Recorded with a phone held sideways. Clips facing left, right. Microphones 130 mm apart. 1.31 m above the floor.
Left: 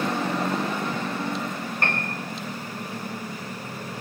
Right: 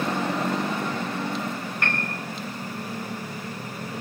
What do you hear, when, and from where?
1.8 s a piano: 35° left (ahead or behind), 4.5 m